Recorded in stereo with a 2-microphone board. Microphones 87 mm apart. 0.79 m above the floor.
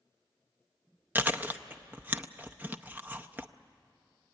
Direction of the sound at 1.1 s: 20° right (ahead or behind).